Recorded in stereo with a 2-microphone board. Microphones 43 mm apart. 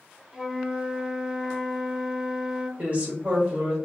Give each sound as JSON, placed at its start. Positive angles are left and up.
{"t": 0.3, "sound": "a flute", "side_deg": -10, "distance_m": 1.5}
{"t": 2.8, "sound": "a woman speaking", "side_deg": -30, "distance_m": 1.9}